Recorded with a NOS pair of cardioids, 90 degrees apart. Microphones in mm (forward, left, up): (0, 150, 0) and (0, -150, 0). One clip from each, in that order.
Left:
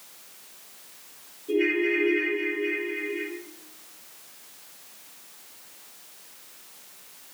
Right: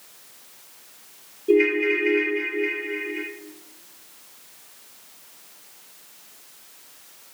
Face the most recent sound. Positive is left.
turn(degrees=-70)